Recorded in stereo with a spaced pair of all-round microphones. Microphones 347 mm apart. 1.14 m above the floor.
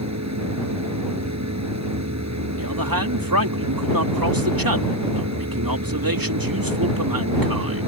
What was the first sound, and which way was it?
A machine running, 50° right (ahead or behind).